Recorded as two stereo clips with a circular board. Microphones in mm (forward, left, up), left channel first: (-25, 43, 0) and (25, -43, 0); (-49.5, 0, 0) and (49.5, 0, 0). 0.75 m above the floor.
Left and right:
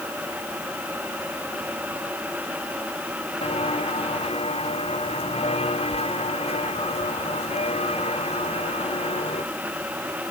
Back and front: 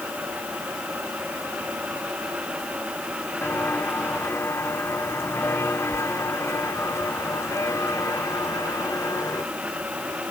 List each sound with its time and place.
3.4 s footsteps: 110° left; by 9.4 s 120° left